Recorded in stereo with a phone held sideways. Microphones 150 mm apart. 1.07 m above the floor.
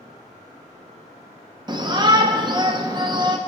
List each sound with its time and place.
1.7 s a shout: 30° right (ahead or behind), 0.8 m